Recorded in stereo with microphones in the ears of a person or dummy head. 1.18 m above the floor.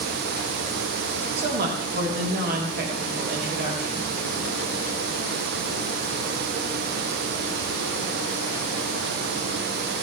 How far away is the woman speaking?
About 4.5 m.